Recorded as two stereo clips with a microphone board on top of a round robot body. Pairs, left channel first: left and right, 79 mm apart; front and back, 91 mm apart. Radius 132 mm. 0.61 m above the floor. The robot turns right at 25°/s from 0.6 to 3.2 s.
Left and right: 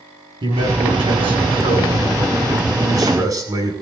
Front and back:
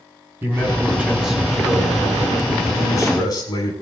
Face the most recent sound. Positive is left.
turn(degrees=-45)